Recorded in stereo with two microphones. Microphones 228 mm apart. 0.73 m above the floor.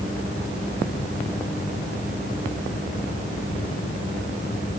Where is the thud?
No thud in this recording.